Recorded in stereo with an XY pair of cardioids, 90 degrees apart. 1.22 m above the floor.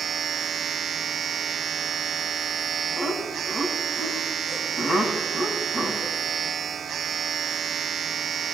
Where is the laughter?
60° left, 8 m.